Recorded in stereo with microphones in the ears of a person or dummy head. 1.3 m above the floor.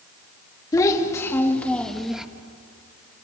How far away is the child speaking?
About 1.9 m.